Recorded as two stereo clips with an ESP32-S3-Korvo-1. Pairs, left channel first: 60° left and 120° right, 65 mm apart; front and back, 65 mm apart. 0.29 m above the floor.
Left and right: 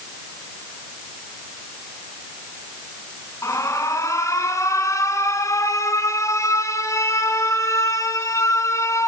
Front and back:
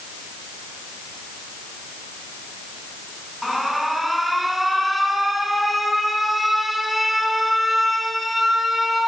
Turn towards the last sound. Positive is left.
turn(degrees=90)